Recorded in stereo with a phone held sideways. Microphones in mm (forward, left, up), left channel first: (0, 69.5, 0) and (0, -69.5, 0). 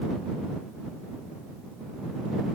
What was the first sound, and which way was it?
Only background noise.